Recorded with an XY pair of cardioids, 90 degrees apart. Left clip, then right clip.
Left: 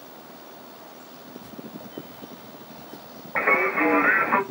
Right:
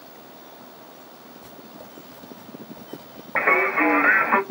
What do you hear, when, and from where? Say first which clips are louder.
1.4 s writing: left 2 dB; 35° right, 1.1 m
3.4 s singing: right 2 dB; 35° right, 1.3 m